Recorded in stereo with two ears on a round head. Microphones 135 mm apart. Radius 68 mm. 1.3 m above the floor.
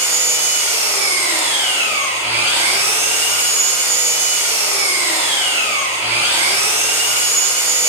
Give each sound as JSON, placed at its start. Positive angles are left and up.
{"t": 0.0, "sound": "an engine running", "side_deg": -15, "distance_m": 5.0}